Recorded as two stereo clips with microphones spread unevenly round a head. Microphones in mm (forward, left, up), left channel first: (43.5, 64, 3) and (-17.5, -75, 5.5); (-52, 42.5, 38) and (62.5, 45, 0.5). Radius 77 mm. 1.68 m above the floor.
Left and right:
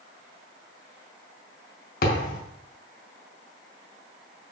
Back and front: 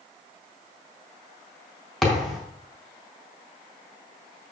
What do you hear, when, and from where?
2.0 s a thud: 100° left, 4 m